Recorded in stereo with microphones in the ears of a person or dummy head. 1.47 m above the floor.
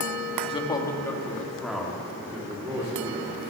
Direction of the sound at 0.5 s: 25° left (ahead or behind).